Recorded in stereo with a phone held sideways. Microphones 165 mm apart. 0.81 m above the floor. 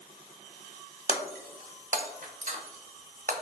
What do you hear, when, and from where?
1.1 s breaking glass: 50° right (ahead or behind), 0.5 m